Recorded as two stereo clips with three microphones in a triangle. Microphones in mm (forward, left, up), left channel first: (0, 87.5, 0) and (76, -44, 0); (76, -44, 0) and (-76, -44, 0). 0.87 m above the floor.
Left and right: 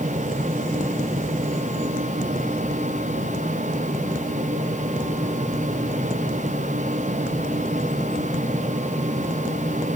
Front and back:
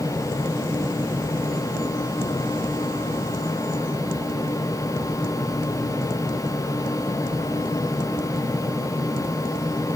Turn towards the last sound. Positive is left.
No sound to turn to.